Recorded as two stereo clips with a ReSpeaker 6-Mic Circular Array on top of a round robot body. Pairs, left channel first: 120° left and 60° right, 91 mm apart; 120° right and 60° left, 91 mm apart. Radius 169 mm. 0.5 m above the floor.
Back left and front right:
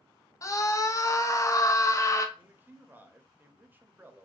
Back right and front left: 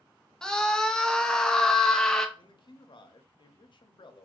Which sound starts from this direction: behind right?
A man speaking, at 2.4 s.